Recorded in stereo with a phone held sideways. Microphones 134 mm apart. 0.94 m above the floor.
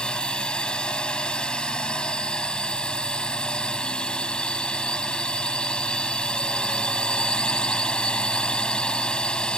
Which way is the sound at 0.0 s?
5° left (ahead or behind).